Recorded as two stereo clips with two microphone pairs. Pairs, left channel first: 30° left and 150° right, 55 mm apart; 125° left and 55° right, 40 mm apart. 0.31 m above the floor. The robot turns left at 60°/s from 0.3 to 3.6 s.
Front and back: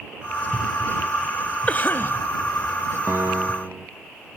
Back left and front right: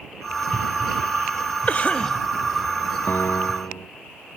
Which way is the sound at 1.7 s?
90° left.